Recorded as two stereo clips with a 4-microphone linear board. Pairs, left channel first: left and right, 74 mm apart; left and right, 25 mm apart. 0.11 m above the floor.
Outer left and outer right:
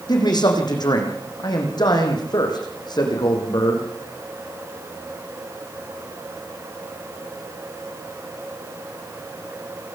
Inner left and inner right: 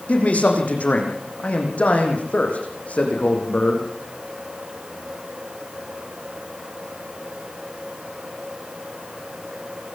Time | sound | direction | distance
0.1 | a man speaking | 65° left (ahead or behind) | 7 m